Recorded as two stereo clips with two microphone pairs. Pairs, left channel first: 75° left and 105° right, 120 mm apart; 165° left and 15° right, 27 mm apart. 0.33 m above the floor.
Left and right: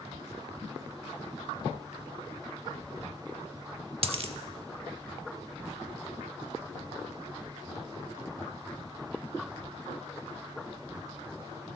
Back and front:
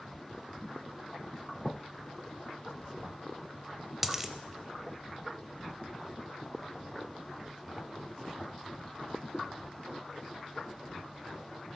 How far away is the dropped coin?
About 0.6 m.